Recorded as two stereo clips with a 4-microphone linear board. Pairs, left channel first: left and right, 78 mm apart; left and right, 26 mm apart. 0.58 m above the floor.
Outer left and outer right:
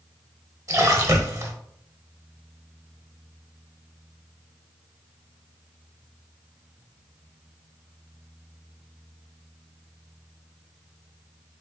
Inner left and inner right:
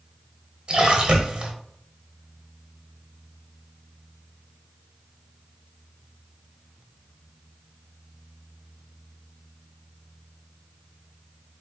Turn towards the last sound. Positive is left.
turn(degrees=-45)  # may be behind; listen again after turning